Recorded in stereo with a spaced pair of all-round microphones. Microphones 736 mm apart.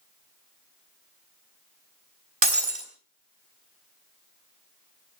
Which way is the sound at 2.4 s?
35° right (ahead or behind).